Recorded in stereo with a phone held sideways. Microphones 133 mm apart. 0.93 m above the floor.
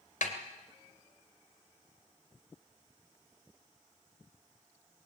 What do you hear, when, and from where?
0.2 s a snare drum: 75° left (ahead or behind), 2.5 m